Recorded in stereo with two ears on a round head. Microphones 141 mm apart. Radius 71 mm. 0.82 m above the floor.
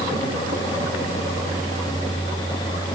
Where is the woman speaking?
No woman speaking in this recording.